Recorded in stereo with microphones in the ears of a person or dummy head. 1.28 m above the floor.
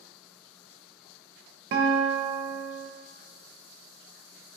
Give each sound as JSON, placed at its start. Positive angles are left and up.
{"t": 1.7, "sound": "a guitar", "side_deg": -45, "distance_m": 0.5}